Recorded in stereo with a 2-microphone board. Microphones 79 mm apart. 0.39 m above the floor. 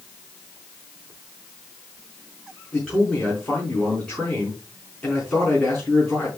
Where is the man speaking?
10° left (ahead or behind), 5 m.